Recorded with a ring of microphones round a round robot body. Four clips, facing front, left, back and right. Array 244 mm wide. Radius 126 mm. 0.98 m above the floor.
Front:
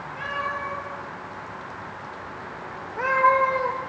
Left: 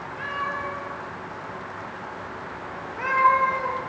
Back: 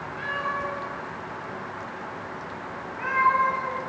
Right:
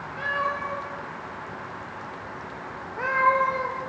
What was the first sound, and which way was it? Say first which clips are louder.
A cat meowing: right 2 dB, even; 70° right.